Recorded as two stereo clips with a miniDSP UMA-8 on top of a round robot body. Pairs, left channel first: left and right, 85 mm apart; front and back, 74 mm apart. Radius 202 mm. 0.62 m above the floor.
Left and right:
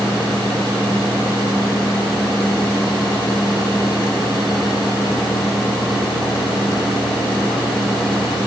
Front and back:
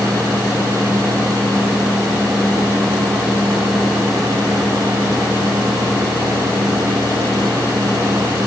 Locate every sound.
Only background noise.